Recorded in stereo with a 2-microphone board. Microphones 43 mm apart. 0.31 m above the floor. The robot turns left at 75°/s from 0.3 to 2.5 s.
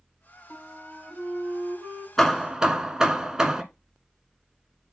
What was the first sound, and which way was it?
A flute, 35° left.